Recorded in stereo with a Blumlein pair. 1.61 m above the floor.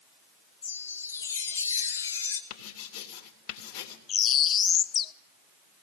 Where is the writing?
40° left, 3 m.